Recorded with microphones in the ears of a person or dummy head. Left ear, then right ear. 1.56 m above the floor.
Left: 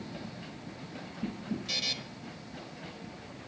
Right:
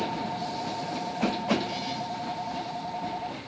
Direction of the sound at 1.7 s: 30° left (ahead or behind).